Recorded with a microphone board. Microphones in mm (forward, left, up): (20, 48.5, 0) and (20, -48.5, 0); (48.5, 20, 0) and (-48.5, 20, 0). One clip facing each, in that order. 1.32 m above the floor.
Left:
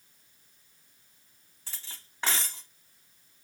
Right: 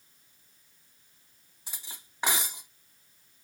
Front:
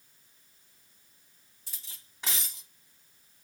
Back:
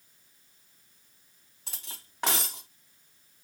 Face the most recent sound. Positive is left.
turn(degrees=-165)